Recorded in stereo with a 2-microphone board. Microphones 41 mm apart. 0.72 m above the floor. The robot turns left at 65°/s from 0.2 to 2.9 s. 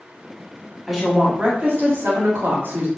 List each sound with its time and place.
0.9 s a woman speaking: 5° left, 1.3 m; by 2.9 s 125° right, 1.3 m